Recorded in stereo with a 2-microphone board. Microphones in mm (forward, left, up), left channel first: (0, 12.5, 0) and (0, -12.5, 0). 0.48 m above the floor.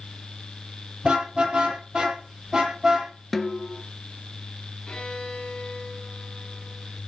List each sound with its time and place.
1.0 s a car horn: 40° right (ahead or behind), 6.5 m; by 3.1 s 30° right (ahead or behind), 7.5 m
3.3 s a snare drum: 5° left (ahead or behind), 1.4 m
4.9 s a violin: 35° left (ahead or behind), 5 m